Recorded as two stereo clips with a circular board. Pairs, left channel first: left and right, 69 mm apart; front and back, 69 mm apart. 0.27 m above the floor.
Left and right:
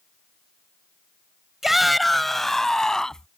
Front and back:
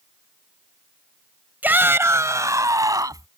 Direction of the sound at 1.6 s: 170° right.